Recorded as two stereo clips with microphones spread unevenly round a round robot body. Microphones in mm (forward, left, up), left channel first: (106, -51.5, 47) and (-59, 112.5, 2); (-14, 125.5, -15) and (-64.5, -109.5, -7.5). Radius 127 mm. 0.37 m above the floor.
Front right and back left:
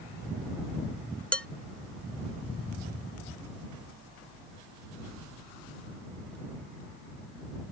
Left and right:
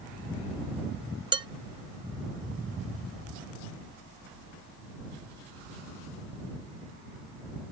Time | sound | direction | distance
1.3 | dishes clattering | 150° right | ?